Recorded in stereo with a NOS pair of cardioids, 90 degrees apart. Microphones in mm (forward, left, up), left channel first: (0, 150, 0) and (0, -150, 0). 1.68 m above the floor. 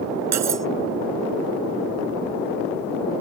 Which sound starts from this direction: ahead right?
Cutlery clinking, at 0.3 s.